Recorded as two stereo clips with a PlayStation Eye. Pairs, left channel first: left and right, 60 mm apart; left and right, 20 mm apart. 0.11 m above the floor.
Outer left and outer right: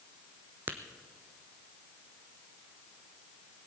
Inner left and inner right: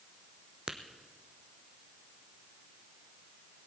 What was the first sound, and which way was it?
Tapping, 35° right (ahead or behind).